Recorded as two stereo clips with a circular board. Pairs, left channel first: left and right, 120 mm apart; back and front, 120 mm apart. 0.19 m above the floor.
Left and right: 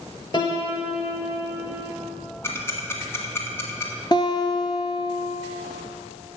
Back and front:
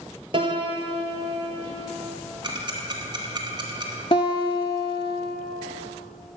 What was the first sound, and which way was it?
A piano, 40° left.